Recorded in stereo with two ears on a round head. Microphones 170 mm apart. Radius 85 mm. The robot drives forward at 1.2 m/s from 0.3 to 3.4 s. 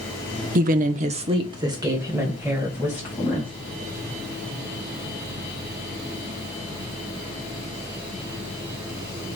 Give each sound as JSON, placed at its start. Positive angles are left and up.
{"t": 0.6, "sound": "a woman speaking", "side_deg": -45, "distance_m": 0.8}